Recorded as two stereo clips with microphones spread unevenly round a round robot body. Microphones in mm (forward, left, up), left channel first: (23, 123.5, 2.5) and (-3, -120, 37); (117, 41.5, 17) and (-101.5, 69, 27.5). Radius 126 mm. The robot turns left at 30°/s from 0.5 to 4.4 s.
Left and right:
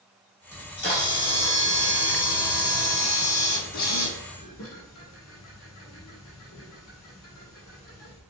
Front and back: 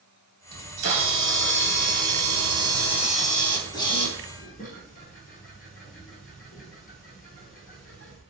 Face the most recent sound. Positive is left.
turn(degrees=50)